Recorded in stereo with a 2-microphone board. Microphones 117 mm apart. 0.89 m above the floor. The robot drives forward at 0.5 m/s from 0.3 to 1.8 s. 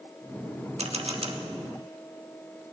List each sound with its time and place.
0.8 s a camera shutter: 65° right (ahead or behind), 1.0 m; by 1.4 s 50° right (ahead or behind), 1.1 m